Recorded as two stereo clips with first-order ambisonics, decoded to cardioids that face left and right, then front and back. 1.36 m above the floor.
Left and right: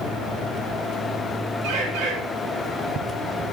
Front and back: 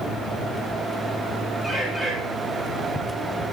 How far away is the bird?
About 4.5 m.